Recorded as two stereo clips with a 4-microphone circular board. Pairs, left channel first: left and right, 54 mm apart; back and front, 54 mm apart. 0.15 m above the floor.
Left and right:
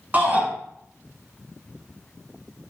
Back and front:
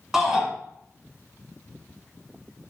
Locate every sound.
0.1 s a shout: 75° right, 1.4 m